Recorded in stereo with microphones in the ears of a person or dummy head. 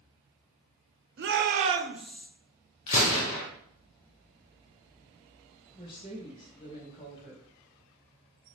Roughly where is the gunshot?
Left.